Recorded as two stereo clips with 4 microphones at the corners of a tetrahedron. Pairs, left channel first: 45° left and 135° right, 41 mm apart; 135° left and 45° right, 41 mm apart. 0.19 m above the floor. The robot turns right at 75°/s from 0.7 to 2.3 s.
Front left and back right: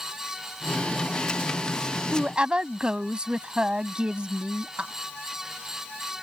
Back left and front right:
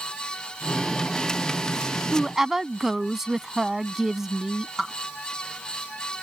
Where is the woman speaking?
125° right; by 4.9 s 115° right.